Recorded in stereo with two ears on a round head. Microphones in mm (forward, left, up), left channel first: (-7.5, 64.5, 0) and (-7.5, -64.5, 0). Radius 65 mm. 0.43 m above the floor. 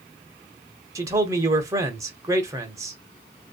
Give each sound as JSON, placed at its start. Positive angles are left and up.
{"t": 0.9, "sound": "a man speaking", "side_deg": -20, "distance_m": 0.8}